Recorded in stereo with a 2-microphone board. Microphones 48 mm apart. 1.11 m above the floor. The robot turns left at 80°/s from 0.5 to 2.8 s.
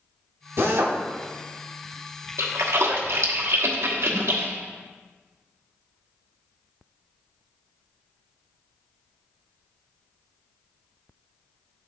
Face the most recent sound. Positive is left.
turn(degrees=-70)  # may be behind; listen again after turning